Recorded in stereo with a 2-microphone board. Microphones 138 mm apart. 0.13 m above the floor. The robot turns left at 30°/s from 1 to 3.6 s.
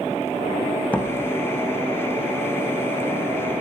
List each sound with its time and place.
0.9 s a door slam: 10° left (ahead or behind), 3.5 m; by 1.1 s 15° left (ahead or behind), 3.5 m